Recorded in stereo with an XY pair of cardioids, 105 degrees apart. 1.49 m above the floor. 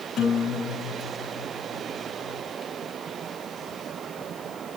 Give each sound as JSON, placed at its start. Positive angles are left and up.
{"t": 0.2, "sound": "a guitar", "azimuth_deg": 70, "distance_m": 6.0}